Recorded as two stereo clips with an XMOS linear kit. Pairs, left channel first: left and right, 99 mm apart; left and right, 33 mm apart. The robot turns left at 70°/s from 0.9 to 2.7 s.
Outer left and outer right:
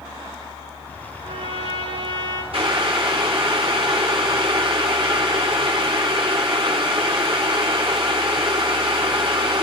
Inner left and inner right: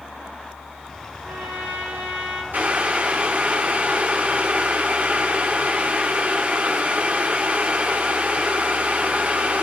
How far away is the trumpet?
About 3.5 m.